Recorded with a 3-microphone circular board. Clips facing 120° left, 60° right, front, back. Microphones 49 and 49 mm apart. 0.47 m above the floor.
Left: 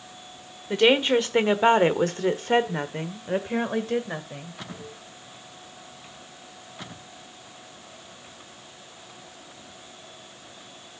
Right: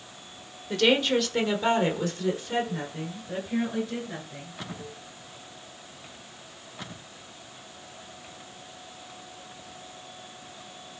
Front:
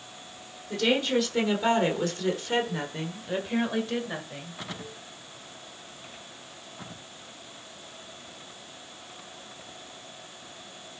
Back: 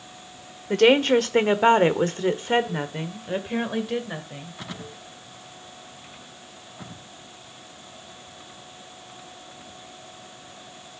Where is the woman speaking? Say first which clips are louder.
Left 3 dB, back 8 dB; 175° right, 1.3 m; by 4.6 s 90° left, 2.0 m.